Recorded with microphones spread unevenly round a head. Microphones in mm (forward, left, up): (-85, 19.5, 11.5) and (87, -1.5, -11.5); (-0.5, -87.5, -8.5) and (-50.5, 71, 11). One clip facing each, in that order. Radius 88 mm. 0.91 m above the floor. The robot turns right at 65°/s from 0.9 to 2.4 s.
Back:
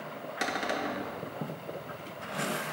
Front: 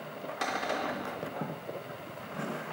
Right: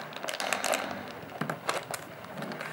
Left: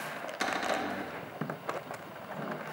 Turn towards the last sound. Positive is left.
turn(degrees=-155)